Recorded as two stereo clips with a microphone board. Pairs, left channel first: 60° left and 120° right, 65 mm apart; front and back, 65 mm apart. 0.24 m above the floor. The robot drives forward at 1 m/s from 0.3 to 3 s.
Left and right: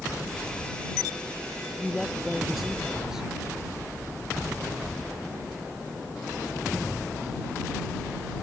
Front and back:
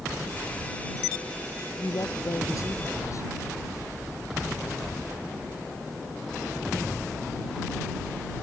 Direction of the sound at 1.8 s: 30° right.